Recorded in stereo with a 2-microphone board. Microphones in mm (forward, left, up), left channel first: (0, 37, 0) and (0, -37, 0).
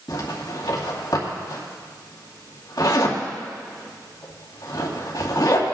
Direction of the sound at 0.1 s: 65° left (ahead or behind).